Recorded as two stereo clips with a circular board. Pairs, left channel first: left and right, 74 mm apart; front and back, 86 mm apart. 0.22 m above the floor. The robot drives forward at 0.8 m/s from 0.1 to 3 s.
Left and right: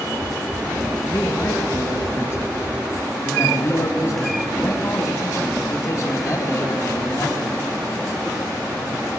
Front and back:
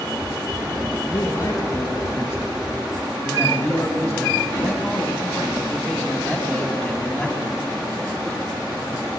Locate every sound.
1.0 s a man speaking: 30° left, 2.5 m; by 7.5 s 85° left, 1.9 m